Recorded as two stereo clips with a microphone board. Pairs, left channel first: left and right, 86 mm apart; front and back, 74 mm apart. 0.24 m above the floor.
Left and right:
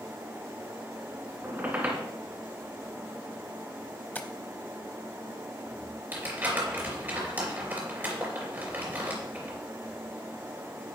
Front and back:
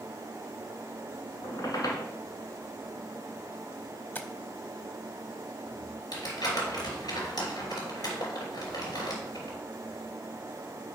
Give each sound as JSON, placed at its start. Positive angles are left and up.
{"t": 1.4, "sound": "a squeak", "azimuth_deg": -25, "distance_m": 1.8}
{"t": 4.2, "sound": "tapping", "azimuth_deg": 35, "distance_m": 0.7}
{"t": 6.1, "sound": "crumpling", "azimuth_deg": -25, "distance_m": 3.0}